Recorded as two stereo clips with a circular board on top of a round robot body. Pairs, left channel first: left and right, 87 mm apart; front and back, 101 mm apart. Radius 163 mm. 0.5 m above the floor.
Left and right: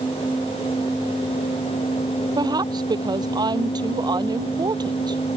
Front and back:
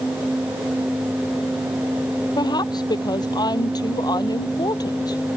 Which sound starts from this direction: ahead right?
A woman speaking, at 2.4 s.